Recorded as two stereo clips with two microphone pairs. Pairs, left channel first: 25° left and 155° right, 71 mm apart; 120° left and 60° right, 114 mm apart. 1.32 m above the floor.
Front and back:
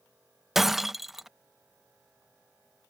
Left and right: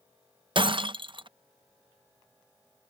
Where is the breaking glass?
65° right.